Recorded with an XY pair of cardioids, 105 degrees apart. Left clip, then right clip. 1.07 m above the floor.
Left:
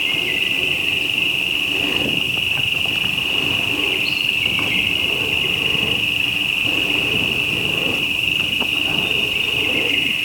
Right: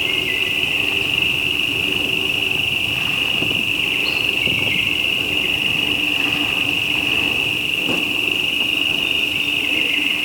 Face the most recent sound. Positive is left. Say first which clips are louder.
# even
turn(degrees=0)